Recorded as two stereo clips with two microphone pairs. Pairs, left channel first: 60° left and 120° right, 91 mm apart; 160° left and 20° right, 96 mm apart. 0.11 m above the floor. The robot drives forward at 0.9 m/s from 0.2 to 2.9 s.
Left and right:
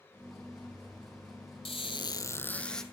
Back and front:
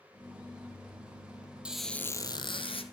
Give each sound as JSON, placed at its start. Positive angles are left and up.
{"t": 1.6, "sound": "a squeak", "azimuth_deg": 60, "distance_m": 0.6}